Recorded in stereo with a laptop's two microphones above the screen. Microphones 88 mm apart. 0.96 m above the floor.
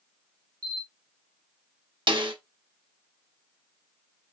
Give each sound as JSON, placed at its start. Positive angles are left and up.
{"t": 0.6, "sound": "a camera shutter", "side_deg": -55, "distance_m": 4.0}
{"t": 2.1, "sound": "a snare drum", "side_deg": -70, "distance_m": 1.4}